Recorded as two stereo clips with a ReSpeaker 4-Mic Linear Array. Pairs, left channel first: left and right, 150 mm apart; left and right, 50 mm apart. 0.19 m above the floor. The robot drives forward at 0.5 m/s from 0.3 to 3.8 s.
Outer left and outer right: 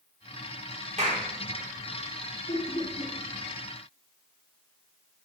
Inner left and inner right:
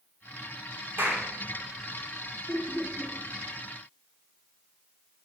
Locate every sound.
1.0 s a clap: 55° right (ahead or behind), 3 m
2.5 s laughter: 35° left (ahead or behind), 1.2 m